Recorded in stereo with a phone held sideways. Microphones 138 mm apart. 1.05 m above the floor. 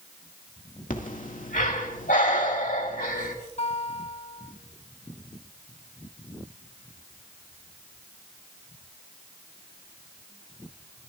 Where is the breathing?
75° left (ahead or behind), 2.0 m.